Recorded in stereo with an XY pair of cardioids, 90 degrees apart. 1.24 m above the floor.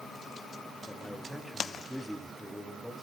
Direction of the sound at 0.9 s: Straight ahead.